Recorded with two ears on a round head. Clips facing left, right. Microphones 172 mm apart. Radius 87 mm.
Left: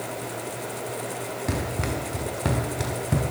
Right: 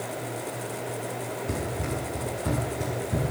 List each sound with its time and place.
1.5 s running footsteps: 85° left, 7 m; by 3.2 s 80° left, 8 m